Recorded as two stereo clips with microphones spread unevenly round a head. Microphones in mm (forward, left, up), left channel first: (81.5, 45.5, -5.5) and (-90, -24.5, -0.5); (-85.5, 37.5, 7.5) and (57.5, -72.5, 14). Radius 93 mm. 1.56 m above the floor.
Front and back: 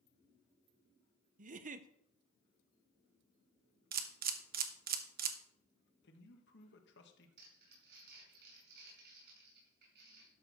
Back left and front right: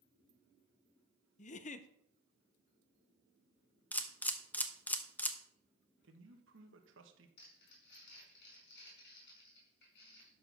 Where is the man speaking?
10° right, 1.5 m.